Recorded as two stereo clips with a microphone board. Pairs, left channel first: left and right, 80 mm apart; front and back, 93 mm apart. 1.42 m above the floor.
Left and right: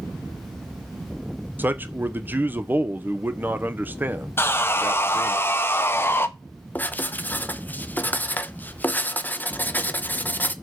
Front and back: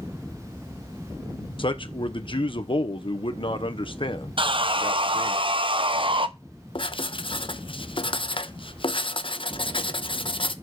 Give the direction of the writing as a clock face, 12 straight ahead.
11 o'clock.